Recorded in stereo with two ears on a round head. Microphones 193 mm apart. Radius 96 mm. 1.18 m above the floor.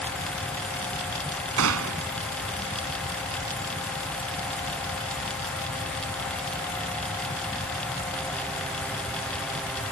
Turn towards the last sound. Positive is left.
turn(degrees=-75)  # may be behind; listen again after turning